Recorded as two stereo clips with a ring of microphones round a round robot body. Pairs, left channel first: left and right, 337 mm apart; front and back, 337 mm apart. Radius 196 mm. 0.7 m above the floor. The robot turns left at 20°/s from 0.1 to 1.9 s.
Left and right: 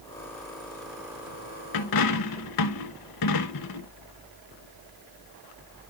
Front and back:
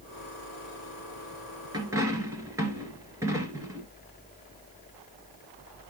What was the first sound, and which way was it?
A dropped coin, 100° left.